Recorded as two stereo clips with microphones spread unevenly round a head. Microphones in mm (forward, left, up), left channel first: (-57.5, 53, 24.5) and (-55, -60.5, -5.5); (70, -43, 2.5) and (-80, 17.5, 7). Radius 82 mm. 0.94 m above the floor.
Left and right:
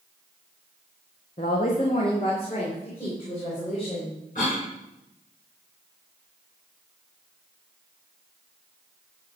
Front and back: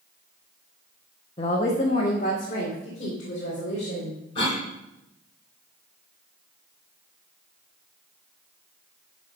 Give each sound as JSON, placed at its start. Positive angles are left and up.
{"t": 1.4, "sound": "a woman speaking", "azimuth_deg": 35, "distance_m": 1.0}
{"t": 4.3, "sound": "a cough", "azimuth_deg": 40, "distance_m": 4.5}